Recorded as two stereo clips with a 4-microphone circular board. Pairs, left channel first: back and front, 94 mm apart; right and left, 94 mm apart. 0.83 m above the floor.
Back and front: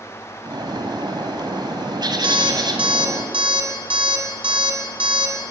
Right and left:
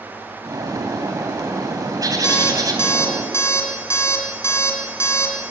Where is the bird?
40° left, 2.5 m.